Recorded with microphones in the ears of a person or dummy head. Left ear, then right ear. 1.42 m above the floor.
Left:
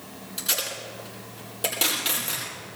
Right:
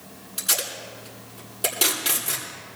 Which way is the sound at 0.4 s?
Centre (ahead or behind).